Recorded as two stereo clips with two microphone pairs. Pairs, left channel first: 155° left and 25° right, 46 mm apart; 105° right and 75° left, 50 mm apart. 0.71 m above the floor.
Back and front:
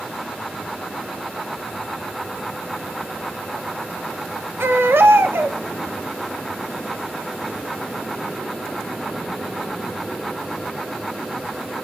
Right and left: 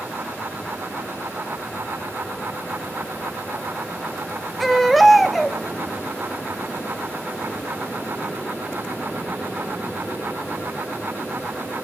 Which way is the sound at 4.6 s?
15° right.